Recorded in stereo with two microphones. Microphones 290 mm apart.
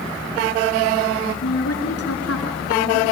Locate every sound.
1.4 s a woman speaking: 60° left (ahead or behind), 3.5 m